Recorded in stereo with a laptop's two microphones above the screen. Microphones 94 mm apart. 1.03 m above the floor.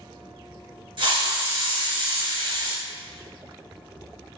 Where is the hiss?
60° right (ahead or behind), 1.3 m.